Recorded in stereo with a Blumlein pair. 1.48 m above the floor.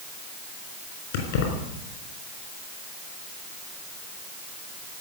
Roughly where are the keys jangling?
Ahead left.